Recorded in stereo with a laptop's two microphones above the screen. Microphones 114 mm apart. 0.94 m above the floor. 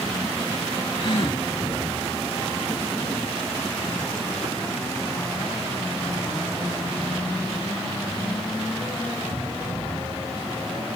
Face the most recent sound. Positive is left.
turn(degrees=50)  # may be behind; listen again after turning